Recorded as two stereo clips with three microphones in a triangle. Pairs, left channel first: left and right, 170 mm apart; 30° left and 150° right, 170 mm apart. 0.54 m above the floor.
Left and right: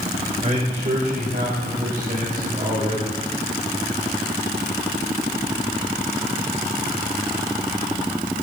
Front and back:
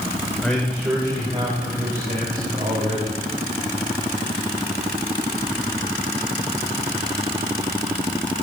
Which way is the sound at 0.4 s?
55° right.